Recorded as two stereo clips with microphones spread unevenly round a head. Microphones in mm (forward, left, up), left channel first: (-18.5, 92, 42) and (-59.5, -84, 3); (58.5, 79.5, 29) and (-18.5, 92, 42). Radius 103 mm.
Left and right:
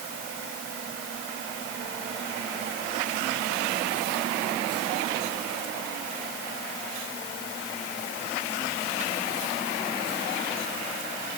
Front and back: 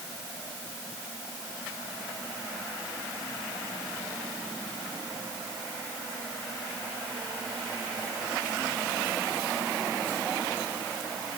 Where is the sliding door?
No sliding door in this recording.